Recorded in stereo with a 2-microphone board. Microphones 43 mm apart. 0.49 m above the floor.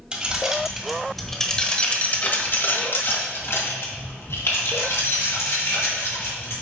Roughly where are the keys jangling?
Right.